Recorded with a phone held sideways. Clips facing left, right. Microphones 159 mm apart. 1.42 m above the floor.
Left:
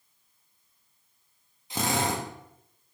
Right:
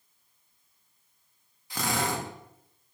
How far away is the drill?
About 1.2 m.